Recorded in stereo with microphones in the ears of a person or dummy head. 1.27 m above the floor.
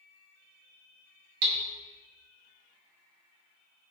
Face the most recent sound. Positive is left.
turn(degrees=-55)  # may be behind; listen again after turning